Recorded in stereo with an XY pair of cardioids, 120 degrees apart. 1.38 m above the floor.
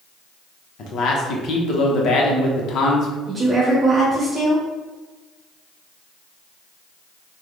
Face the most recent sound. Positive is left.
turn(degrees=-10)